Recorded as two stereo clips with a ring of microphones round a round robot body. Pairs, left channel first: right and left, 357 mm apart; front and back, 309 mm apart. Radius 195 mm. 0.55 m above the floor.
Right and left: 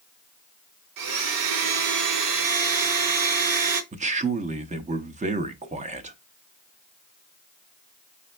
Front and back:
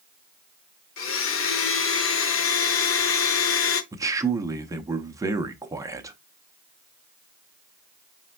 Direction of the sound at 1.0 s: 50° left.